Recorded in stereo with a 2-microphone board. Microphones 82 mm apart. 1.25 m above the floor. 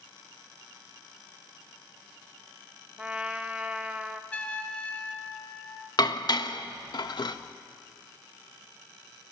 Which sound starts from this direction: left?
Dishes clattering, at 6.0 s.